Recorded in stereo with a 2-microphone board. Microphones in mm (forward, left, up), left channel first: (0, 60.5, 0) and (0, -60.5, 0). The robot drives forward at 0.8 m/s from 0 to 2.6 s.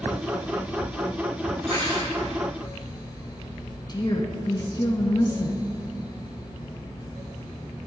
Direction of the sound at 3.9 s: 40° left (ahead or behind).